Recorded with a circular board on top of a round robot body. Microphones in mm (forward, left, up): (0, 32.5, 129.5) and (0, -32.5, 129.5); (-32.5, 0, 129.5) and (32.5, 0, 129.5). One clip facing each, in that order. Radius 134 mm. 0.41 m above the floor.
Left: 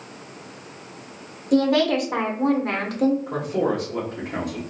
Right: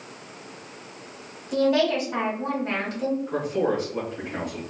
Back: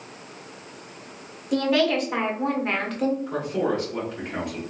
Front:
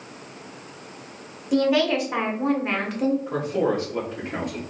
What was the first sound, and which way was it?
A woman speaking, 80° left.